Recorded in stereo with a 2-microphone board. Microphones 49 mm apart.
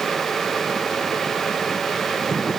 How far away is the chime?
No chime in this recording.